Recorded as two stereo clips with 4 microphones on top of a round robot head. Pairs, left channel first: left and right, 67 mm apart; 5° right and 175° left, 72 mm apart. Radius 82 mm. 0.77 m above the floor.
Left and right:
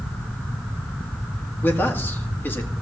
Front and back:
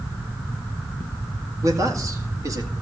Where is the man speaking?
145° left, 2.0 m.